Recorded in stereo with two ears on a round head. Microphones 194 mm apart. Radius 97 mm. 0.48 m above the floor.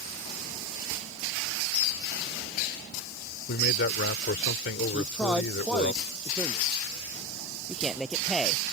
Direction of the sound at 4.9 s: Centre (ahead or behind).